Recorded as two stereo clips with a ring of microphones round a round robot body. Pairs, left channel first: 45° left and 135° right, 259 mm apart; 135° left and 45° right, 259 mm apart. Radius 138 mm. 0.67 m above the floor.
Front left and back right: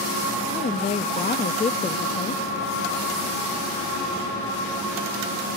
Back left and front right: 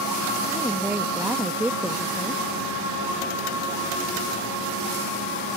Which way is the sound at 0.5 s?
30° left.